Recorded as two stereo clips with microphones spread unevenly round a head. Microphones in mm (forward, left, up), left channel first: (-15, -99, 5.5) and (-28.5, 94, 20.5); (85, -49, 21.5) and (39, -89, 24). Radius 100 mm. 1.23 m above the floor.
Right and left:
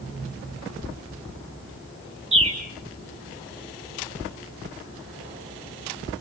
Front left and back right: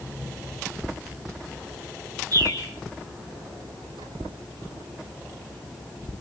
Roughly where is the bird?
Behind left.